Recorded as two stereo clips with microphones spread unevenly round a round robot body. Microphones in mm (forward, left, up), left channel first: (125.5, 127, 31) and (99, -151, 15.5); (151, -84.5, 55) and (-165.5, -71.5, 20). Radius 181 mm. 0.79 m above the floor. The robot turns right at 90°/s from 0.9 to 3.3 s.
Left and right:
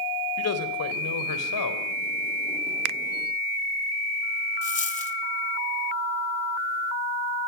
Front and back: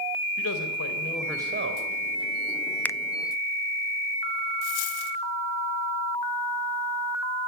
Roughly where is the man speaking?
Ahead left.